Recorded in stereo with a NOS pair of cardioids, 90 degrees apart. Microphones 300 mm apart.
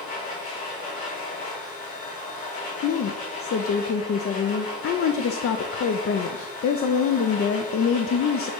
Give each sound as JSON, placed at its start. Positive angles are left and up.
{"t": 0.0, "sound": "a machine running", "azimuth_deg": 70, "distance_m": 3.0}
{"t": 2.8, "sound": "a woman speaking", "azimuth_deg": 50, "distance_m": 0.6}